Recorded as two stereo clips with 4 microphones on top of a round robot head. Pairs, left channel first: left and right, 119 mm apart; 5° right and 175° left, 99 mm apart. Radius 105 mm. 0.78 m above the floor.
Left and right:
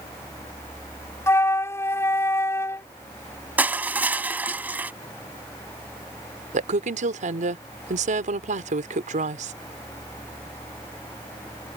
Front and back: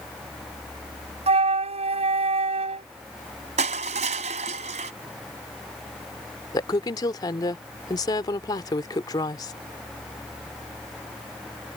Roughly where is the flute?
Behind.